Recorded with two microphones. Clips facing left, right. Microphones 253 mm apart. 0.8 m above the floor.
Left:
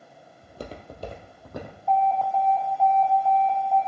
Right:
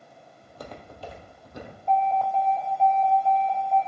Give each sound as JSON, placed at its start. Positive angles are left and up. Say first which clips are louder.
{"t": 0.4, "sound": "footsteps", "louder": "left 3 dB", "side_deg": 20, "distance_m": 1.4}
{"t": 1.9, "sound": "an alarm", "louder": "left 1 dB", "side_deg": -20, "distance_m": 4.5}